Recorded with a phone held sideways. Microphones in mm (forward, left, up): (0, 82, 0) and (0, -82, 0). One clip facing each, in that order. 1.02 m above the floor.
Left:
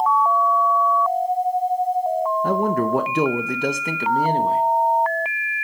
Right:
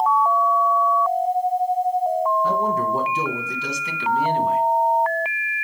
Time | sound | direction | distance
2.4 | a man speaking | 55° left (ahead or behind) | 0.8 m